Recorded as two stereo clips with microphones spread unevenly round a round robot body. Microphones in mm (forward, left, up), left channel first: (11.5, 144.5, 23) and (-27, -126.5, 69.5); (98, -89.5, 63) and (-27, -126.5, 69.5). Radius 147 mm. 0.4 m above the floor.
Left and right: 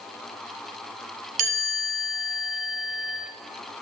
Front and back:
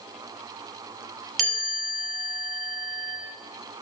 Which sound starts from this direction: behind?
A chime, at 1.4 s.